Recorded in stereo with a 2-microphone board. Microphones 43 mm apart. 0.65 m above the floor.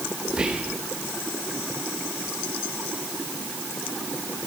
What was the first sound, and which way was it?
Whispering, 20° right (ahead or behind).